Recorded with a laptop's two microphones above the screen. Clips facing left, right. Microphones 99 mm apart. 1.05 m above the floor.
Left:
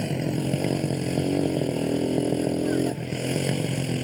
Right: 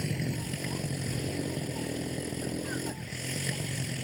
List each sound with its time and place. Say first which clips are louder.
0.0 s a motorcycle: left 8 dB; 60° left (ahead or behind)